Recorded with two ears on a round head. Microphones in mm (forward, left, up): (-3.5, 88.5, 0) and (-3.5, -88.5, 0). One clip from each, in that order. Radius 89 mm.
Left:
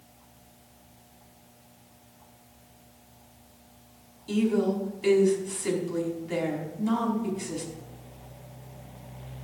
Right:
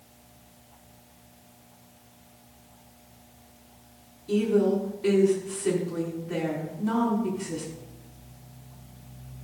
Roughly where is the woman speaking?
Left.